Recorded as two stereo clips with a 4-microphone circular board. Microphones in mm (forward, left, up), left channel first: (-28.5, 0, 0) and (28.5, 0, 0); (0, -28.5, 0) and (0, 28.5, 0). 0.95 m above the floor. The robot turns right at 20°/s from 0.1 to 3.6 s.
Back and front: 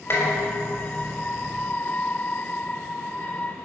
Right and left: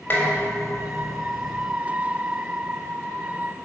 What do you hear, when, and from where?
0.1 s dishes clattering: 145° right, 4 m; by 1.7 s 110° right, 4 m